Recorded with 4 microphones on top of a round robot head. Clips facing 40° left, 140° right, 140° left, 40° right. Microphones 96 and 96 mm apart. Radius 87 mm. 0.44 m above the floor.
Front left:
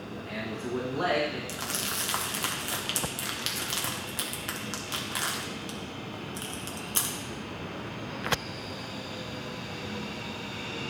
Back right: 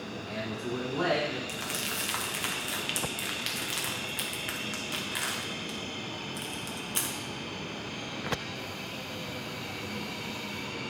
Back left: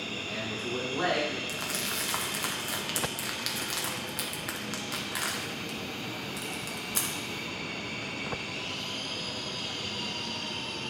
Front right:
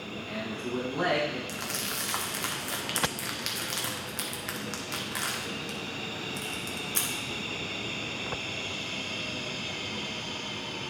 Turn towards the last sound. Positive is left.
turn(degrees=60)